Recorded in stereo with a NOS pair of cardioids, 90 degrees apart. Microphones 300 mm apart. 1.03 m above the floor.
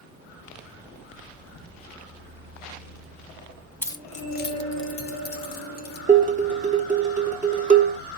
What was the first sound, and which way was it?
Keys jangling, 5° left.